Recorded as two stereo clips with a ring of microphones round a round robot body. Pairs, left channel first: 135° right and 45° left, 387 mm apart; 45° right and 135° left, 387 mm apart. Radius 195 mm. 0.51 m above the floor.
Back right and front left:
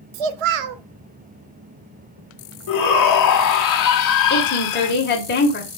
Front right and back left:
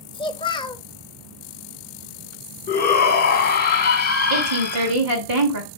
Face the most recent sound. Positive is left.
turn(degrees=165)